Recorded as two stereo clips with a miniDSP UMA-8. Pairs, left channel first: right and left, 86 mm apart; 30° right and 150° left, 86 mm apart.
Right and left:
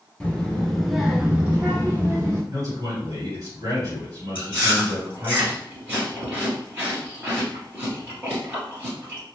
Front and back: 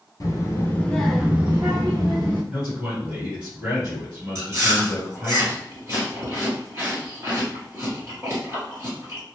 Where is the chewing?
150° left, 1.7 m.